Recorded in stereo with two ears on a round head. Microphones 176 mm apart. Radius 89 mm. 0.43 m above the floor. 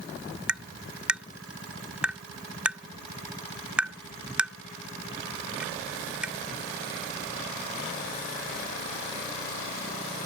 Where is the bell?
I don't hear a bell.